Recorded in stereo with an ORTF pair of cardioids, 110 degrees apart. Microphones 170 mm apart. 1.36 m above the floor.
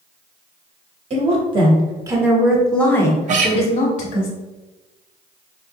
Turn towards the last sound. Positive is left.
turn(degrees=-45)